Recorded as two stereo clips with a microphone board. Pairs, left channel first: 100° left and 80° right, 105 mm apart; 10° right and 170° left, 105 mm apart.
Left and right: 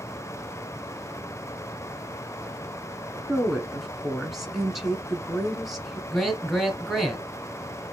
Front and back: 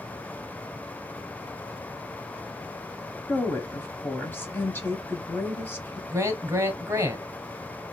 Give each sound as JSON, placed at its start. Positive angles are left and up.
{"t": 3.3, "sound": "a woman speaking", "azimuth_deg": 5, "distance_m": 1.0}
{"t": 6.1, "sound": "a man speaking", "azimuth_deg": -175, "distance_m": 1.2}